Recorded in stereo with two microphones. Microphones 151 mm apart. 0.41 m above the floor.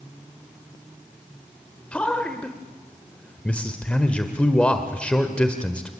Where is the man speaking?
10° left (ahead or behind), 1.6 m.